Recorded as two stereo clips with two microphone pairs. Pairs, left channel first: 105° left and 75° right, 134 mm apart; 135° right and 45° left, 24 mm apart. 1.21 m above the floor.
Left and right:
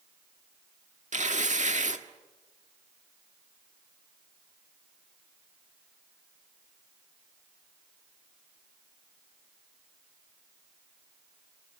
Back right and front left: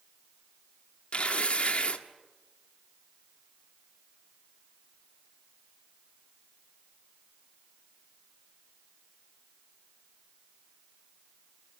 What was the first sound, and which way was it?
Tearing paper, 100° right.